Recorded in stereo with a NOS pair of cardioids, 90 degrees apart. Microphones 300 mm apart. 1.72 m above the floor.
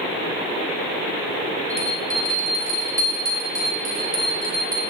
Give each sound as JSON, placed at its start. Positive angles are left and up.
{"t": 1.7, "sound": "a bell", "azimuth_deg": -10, "distance_m": 2.5}